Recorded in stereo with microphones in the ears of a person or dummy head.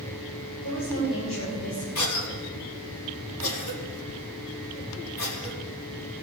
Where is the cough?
85° left, 4 m.